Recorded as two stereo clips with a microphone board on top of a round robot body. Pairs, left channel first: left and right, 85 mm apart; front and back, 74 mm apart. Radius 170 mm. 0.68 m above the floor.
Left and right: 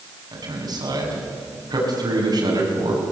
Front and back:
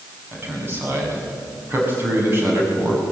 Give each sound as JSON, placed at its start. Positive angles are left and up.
{"t": 0.3, "sound": "a man speaking", "azimuth_deg": -120, "distance_m": 7.5}